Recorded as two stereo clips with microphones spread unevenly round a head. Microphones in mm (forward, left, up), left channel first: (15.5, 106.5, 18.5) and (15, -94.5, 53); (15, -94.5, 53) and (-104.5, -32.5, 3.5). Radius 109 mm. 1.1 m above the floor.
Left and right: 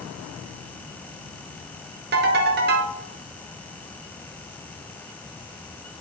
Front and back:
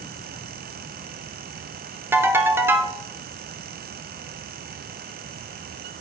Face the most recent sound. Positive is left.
turn(degrees=-120)